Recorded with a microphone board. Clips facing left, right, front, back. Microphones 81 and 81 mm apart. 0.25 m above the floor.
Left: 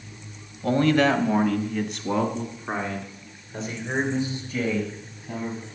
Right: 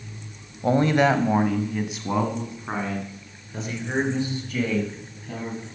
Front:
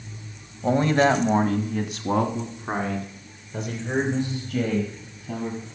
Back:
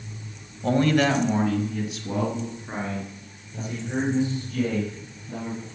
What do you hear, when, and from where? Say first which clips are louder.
0.6 s a man speaking: right 1 dB, front 1 dB; 65° right, 1.0 m; by 5.7 s 5° left, 4.5 m